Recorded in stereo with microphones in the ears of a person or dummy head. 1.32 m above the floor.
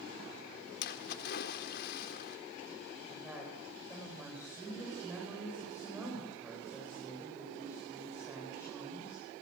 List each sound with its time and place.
0.8 s a splash: 55° left (ahead or behind), 1.7 m
3.1 s a woman speaking: 10° right (ahead or behind), 6.5 m